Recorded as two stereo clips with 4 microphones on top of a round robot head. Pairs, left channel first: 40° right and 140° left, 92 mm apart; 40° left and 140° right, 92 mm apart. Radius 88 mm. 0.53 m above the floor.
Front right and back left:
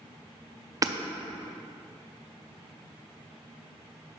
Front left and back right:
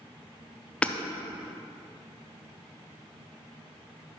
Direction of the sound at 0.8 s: 115° left.